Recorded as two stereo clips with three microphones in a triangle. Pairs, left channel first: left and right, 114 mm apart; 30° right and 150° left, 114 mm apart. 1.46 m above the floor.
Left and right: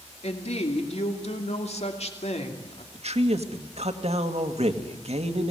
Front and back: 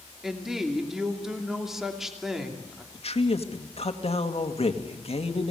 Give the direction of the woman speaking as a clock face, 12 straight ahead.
10 o'clock.